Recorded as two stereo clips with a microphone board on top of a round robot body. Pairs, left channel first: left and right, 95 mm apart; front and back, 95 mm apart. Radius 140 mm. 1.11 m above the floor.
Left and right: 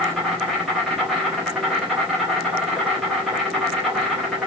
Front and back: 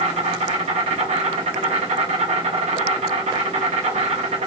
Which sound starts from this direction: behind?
An insect, at 0.0 s.